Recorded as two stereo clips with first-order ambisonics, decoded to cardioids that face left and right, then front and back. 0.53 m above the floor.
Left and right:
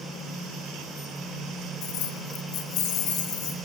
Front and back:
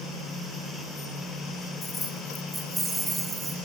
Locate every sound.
1.8 s keys jangling: 75° left, 1.1 m; by 3.6 s 110° left, 2.5 m